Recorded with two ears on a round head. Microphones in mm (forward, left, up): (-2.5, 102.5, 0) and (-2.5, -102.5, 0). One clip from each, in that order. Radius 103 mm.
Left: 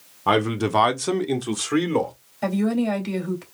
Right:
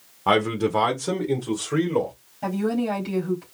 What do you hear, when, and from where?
0.3 s a man speaking: 15° right (ahead or behind), 0.7 m; by 2.1 s 65° left (ahead or behind), 1.9 m
2.4 s a woman speaking: 60° left (ahead or behind), 2.5 m